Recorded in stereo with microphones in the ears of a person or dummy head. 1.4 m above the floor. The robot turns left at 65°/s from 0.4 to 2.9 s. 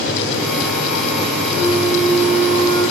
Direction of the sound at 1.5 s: 120° left.